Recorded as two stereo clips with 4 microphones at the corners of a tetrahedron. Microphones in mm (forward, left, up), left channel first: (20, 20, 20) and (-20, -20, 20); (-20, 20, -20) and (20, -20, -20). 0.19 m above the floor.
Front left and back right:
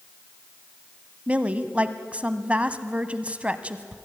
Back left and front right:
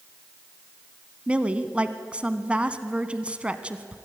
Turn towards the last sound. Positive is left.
turn(degrees=-90)